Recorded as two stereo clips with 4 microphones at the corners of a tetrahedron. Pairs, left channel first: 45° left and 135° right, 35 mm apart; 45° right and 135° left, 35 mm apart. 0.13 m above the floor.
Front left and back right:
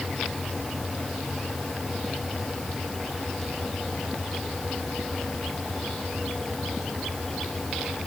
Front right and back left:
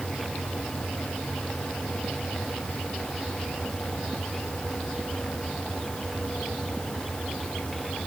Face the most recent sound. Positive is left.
No sound to turn to.